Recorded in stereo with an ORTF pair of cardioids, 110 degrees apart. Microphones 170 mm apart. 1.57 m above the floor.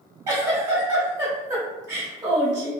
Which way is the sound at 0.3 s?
20° right.